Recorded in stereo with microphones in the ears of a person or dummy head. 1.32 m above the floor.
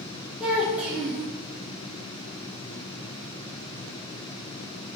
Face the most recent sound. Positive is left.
turn(degrees=-5)  # may be behind; listen again after turning